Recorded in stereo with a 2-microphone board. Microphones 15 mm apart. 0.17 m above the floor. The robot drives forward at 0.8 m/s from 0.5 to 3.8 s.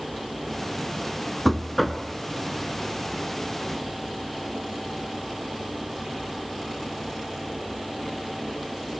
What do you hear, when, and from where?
1.4 s knocking: 5° left (ahead or behind), 0.9 m